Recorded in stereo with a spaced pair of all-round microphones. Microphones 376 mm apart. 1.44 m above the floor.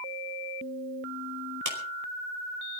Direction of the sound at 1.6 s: 55° right (ahead or behind).